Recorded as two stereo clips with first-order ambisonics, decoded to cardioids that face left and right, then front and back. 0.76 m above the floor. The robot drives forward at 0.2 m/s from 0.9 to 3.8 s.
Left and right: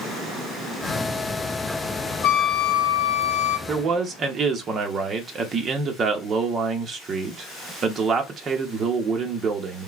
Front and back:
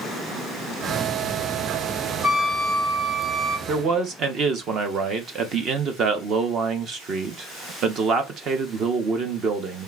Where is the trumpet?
95° left, 1.0 m; by 3.6 s 110° left, 1.1 m.